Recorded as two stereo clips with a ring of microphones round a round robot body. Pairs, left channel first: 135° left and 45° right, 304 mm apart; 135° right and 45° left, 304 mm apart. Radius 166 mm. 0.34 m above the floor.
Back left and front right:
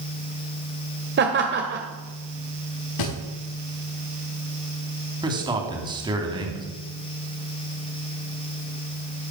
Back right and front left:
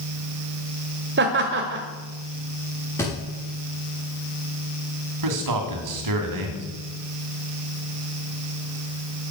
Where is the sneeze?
I don't hear a sneeze.